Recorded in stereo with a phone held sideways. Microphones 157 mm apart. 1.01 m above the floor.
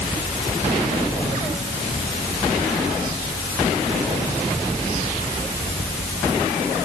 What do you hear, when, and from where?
Only background noise.